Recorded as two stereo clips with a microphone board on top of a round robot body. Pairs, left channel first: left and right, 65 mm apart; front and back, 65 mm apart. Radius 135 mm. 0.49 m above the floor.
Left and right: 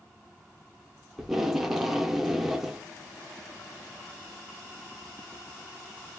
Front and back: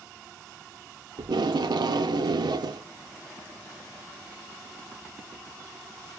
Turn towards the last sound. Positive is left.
turn(degrees=-175)